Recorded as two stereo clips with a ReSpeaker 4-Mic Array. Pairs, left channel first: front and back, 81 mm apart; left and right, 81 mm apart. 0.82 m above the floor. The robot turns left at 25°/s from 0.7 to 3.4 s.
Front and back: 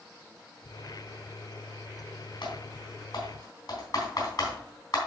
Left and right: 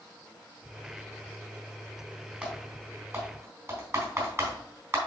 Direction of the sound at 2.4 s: 20° right.